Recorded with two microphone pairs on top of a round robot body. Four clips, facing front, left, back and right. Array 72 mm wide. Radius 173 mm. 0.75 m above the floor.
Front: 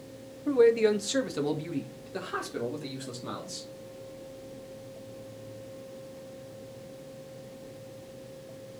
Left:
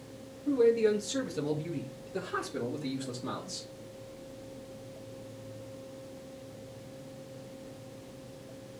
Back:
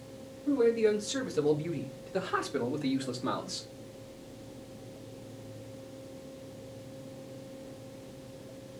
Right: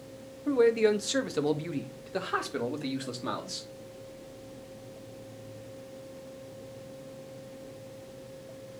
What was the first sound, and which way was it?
A man speaking, 50° right.